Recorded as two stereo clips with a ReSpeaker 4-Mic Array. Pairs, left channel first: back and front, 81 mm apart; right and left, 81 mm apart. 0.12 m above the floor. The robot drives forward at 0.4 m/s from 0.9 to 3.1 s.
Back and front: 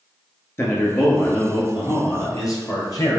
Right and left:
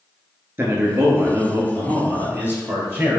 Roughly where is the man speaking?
Behind left.